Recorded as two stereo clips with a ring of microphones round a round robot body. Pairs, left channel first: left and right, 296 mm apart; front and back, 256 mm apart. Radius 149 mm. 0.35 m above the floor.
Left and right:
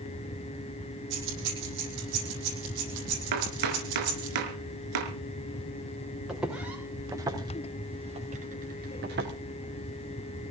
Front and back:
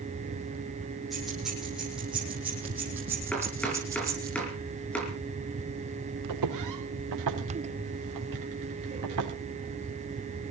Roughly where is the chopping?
Right.